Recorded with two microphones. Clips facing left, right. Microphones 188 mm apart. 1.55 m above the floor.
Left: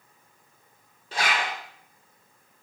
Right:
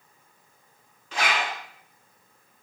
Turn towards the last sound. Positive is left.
turn(degrees=40)  # may be behind; listen again after turning